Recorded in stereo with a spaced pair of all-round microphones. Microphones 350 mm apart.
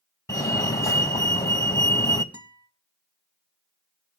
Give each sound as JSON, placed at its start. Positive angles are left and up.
{"t": 0.3, "sound": "a fire alarm", "side_deg": 10, "distance_m": 1.5}
{"t": 2.3, "sound": "a guitar", "side_deg": -50, "distance_m": 2.5}